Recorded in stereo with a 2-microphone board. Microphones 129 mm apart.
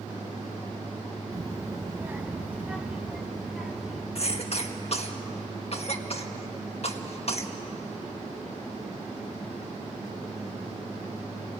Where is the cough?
50° left (ahead or behind), 1.7 m.